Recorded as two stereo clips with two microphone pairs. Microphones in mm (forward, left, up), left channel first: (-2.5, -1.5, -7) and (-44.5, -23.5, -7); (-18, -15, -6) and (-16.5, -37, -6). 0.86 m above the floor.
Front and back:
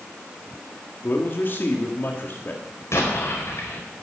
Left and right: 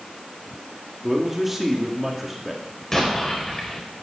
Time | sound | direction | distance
1.0 | a man speaking | 5° right | 2 m
2.9 | an explosion | 20° left | 4.5 m